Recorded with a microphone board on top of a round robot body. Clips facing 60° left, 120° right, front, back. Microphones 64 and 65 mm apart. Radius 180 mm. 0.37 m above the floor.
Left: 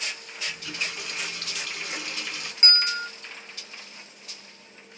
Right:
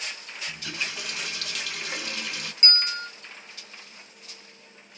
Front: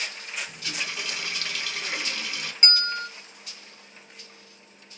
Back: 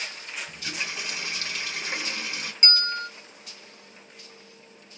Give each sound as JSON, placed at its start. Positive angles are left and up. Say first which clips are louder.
{"t": 0.5, "sound": "a running tap", "louder": "even, even", "azimuth_deg": -120, "distance_m": 1.4}
{"t": 2.6, "sound": "a bell", "louder": "left 3 dB, even", "azimuth_deg": 30, "distance_m": 1.2}